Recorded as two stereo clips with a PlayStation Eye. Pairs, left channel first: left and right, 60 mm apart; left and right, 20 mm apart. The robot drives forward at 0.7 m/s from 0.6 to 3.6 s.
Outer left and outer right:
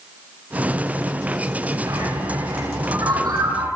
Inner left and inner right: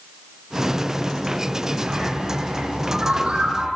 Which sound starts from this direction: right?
A bird, at 1.9 s.